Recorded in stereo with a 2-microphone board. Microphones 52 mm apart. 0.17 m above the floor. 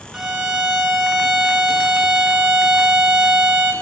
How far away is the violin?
About 0.9 m.